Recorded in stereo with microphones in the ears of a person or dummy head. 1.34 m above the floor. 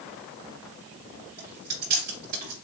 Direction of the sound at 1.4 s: 45° right (ahead or behind).